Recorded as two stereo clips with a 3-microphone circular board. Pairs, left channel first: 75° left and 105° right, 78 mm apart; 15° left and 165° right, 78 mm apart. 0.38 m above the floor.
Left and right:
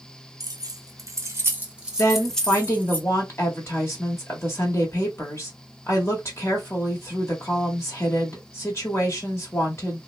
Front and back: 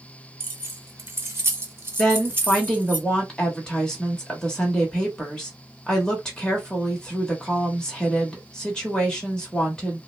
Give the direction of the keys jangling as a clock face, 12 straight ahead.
4 o'clock.